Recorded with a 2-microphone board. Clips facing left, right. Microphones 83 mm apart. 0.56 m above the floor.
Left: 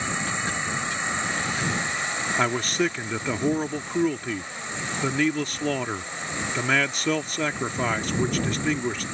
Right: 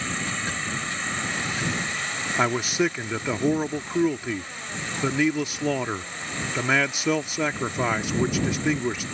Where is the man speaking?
5° right (ahead or behind).